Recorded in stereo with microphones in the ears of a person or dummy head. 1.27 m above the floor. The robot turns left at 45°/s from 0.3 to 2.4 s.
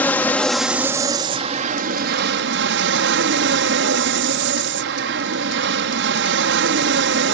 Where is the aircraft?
10° left; by 7.3 s 85° right.